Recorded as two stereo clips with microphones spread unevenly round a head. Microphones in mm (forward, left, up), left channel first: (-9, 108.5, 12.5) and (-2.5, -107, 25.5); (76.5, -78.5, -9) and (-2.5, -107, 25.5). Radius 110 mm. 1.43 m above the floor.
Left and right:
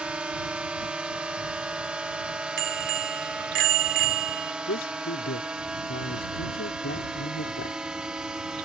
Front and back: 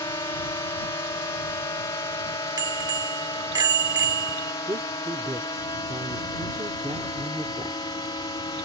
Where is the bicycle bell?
125° right.